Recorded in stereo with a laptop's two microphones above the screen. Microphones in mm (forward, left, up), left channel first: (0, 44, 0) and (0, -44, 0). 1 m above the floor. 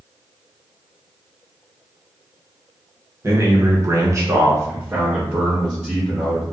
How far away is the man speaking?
About 0.8 m.